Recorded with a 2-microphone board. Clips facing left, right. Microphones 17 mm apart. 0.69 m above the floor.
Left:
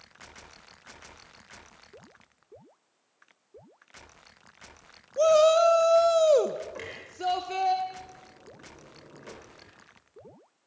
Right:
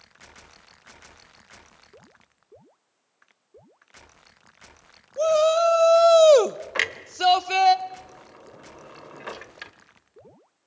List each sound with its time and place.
5.2 s a shout: 5° left (ahead or behind), 0.9 m; by 7.8 s 50° right (ahead or behind), 1.4 m
6.8 s a clunk: 65° right (ahead or behind), 0.9 m